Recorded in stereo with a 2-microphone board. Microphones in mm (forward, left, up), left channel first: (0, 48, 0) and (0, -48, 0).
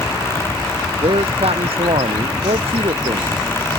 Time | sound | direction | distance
1.0 | a man speaking | 75° right (ahead or behind) | ?